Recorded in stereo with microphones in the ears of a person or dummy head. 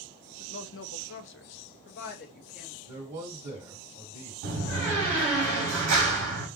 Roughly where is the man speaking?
Right.